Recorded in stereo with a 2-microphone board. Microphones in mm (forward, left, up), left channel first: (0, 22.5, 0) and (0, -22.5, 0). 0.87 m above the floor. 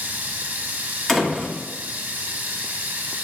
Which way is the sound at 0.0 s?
50° right (ahead or behind).